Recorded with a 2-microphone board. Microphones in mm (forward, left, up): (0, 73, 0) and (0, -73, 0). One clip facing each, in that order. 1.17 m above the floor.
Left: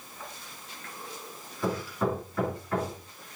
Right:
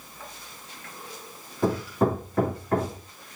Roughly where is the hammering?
Right.